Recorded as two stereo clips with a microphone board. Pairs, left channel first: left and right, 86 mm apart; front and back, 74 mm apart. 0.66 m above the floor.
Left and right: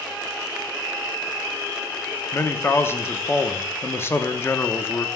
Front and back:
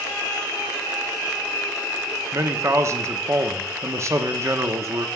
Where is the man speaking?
145° left, 0.7 m.